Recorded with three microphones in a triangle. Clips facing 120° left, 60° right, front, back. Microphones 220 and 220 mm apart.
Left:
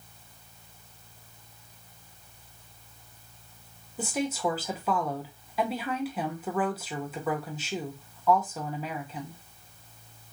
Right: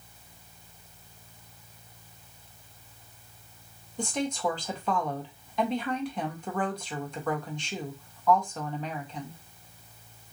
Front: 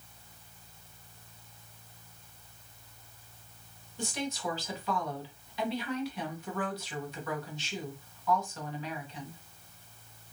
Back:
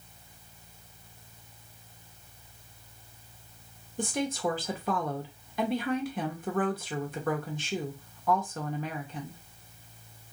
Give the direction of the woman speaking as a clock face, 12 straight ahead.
5 o'clock.